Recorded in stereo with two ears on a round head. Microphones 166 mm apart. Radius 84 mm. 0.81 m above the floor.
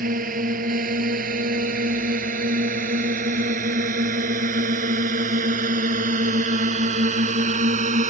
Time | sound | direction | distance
0.0 | a drone | 45° right (ahead or behind) | ?